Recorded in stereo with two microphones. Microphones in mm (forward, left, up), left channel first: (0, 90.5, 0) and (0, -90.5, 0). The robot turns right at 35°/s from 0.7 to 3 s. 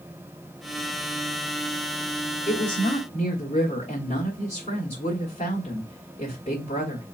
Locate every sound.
2.5 s a woman speaking: 40° left (ahead or behind), 1.3 m